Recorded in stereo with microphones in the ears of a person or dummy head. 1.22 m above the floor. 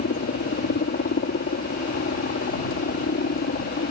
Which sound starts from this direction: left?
A helicopter, at 0.0 s.